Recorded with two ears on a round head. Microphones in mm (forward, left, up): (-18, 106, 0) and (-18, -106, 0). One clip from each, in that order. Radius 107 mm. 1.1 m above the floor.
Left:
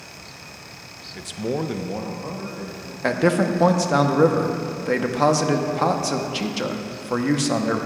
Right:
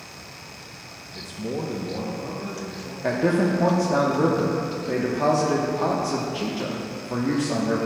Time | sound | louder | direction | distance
1.1 | a man speaking | left 4 dB | 30° left (ahead or behind) | 0.6 m
3.0 | a man speaking | left 2 dB | 50° left (ahead or behind) | 0.7 m